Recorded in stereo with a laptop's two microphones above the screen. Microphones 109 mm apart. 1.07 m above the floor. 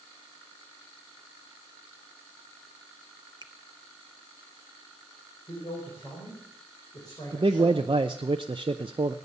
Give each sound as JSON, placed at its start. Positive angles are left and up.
{"t": 3.4, "sound": "a finger snap", "side_deg": -40, "distance_m": 0.6}
{"t": 5.5, "sound": "a man speaking", "side_deg": 35, "distance_m": 4.5}
{"t": 7.3, "sound": "a man speaking", "side_deg": -50, "distance_m": 0.6}